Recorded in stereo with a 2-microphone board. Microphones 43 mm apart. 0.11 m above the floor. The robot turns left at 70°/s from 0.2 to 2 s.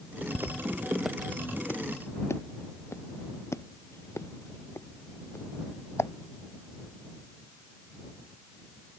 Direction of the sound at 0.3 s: 85° right.